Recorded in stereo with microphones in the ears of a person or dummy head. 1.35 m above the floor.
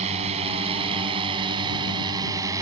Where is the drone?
40° right (ahead or behind); by 2.6 s 20° right (ahead or behind).